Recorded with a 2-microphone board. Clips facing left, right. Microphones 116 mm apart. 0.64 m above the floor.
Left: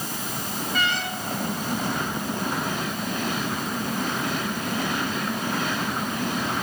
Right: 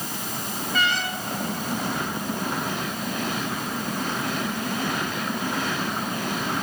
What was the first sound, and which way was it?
Only background noise.